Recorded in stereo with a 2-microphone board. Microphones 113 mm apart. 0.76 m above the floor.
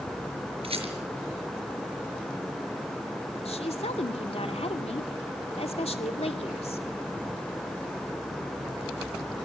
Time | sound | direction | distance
0.6 | a rattle | 60° right (ahead or behind) | 5 m
3.5 | a woman speaking | 70° left (ahead or behind) | 2 m